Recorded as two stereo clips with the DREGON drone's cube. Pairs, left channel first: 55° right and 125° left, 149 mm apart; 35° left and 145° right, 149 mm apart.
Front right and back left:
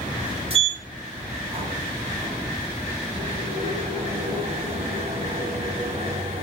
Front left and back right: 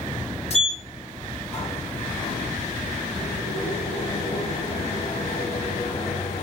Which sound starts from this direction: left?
A sliding door, at 0.5 s.